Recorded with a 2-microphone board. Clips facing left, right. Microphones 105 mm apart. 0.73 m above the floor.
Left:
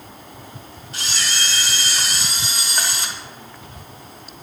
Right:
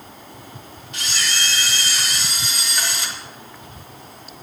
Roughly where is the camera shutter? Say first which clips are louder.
Even; left.